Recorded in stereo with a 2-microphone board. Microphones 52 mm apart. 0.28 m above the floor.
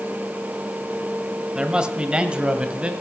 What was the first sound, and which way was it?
A man speaking, 15° right (ahead or behind).